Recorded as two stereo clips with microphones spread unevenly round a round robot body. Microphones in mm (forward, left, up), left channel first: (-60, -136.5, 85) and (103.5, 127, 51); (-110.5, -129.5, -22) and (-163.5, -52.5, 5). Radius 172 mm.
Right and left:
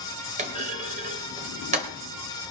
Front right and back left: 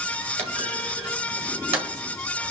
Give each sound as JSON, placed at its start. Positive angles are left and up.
{"t": 0.4, "sound": "a clunk", "azimuth_deg": 120, "distance_m": 1.9}